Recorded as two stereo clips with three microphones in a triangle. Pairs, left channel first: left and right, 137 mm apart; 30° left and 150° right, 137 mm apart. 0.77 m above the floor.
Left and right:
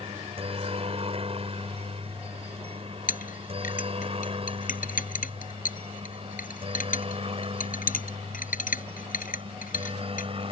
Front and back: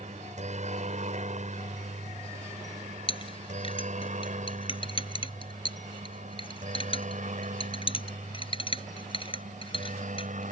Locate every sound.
0.0 s a helicopter: 130° right; by 10.5 s 135° right
3.1 s a clink: 80° left